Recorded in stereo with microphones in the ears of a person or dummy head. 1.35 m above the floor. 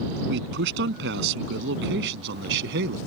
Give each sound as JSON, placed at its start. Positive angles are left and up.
{"t": 0.3, "sound": "a man speaking", "side_deg": -65}